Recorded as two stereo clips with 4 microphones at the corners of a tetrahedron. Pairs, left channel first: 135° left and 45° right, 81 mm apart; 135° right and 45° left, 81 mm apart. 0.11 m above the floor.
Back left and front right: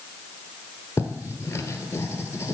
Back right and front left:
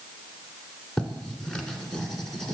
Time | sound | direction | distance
1.0 | writing | 150° left | 1.2 m